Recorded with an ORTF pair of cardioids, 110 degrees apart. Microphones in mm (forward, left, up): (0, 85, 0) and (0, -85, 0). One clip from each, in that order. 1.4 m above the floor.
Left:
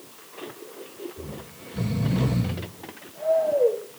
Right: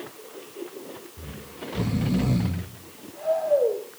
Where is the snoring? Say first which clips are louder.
Even; 30° right, 4.5 m.